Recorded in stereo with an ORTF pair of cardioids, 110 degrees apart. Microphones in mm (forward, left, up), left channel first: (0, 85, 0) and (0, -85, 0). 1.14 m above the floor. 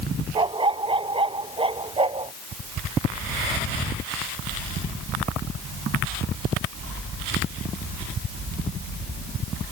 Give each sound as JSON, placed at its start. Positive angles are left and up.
{"t": 0.3, "sound": "a dog barking", "azimuth_deg": -30}